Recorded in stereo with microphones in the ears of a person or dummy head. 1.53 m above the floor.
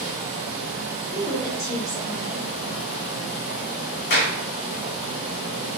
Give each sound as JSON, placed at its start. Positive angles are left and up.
{"t": 0.0, "sound": "a fan", "side_deg": 50, "distance_m": 1.1}
{"t": 1.1, "sound": "a woman speaking", "side_deg": 15, "distance_m": 0.8}
{"t": 4.1, "sound": "a clap", "side_deg": 50, "distance_m": 0.7}